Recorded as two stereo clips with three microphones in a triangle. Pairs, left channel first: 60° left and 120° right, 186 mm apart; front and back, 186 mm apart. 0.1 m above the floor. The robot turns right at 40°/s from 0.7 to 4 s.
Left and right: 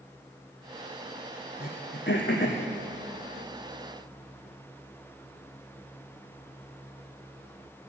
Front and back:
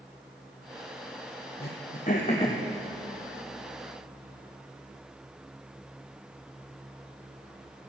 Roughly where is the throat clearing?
Ahead left.